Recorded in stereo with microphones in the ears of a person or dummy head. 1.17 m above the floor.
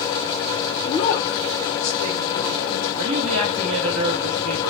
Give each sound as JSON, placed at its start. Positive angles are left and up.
{"t": 0.8, "sound": "a woman speaking", "side_deg": 20, "distance_m": 0.6}
{"t": 3.0, "sound": "a woman speaking", "side_deg": -45, "distance_m": 0.6}